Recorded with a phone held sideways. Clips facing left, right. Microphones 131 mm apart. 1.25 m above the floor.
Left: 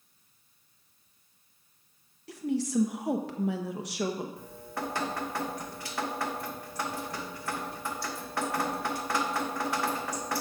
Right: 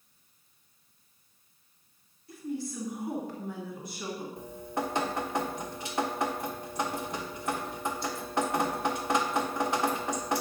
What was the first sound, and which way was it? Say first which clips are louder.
A woman speaking: left 6 dB; 80° left.